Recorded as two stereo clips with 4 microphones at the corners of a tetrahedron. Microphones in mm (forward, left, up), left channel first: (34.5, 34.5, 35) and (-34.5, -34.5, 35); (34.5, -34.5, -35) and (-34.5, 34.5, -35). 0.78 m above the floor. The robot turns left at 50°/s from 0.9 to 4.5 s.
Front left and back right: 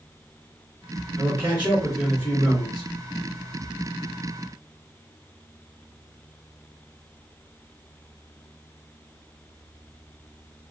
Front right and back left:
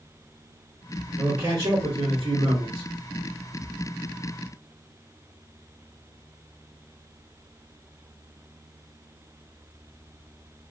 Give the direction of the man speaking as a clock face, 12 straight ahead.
6 o'clock.